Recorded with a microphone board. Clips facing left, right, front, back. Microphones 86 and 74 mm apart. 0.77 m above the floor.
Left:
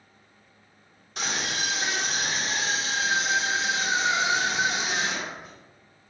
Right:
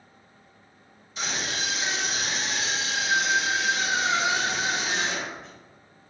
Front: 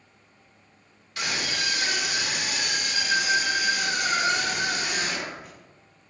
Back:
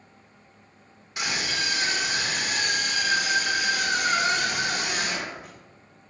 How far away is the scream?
About 1.9 m.